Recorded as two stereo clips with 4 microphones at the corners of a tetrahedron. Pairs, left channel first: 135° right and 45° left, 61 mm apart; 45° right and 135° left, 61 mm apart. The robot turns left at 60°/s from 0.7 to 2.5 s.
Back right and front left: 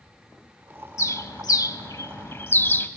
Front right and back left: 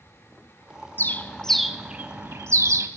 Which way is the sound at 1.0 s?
95° right.